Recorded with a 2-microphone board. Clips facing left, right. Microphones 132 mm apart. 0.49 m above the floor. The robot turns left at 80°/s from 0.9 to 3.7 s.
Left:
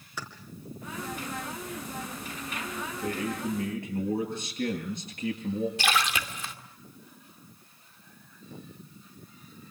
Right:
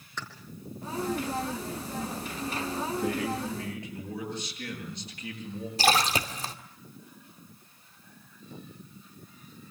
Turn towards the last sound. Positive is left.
turn(degrees=-35)  # may be behind; listen again after turning